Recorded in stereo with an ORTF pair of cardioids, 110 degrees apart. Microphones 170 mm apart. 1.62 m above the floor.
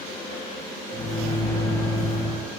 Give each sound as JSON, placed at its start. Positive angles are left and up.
{"t": 0.9, "sound": "a microwave", "azimuth_deg": 25, "distance_m": 1.6}